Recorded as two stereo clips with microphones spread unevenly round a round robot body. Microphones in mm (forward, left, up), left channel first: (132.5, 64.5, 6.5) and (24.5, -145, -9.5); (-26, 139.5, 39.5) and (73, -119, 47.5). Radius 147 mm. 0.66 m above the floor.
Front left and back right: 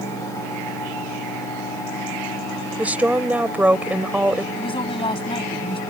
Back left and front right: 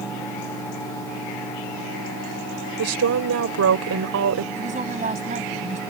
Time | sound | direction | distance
2.8 | a woman speaking | 35° right | ?
4.6 | a woman speaking | 5° right | ?